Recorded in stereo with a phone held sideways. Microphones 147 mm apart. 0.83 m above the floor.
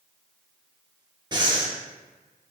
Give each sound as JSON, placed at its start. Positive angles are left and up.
{"t": 1.3, "sound": "breathing", "side_deg": -30, "distance_m": 0.8}